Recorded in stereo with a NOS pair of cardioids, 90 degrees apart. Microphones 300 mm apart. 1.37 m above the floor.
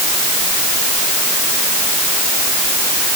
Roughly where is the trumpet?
I don't hear a trumpet.